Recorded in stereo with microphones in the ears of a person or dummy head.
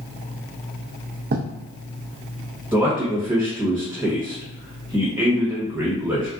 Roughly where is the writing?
Right.